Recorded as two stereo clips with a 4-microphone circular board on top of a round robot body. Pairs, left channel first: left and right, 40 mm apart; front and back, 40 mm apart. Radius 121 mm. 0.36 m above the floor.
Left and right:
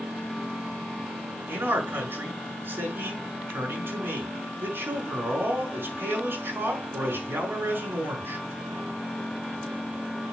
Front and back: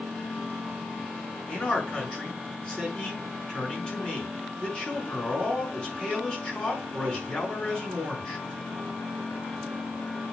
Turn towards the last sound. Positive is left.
turn(degrees=-70)